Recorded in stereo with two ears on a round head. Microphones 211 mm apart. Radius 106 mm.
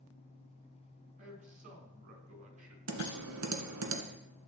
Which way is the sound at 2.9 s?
80° right.